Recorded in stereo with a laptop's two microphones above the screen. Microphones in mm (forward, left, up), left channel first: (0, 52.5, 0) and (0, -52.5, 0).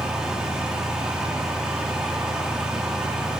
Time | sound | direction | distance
0.0 | a fan | 5° right (ahead or behind) | 1.8 m